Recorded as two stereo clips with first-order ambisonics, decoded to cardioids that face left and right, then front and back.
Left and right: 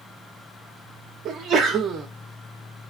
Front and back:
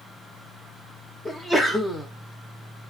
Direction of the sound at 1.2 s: 70° right.